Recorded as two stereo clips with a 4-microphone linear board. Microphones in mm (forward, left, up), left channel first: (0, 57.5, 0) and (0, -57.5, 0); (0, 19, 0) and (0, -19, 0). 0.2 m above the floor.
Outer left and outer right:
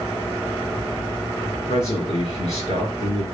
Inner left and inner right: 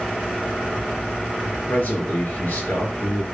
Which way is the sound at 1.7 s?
65° left (ahead or behind).